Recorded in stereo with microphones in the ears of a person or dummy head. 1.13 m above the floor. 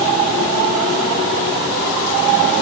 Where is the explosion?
I don't hear an explosion.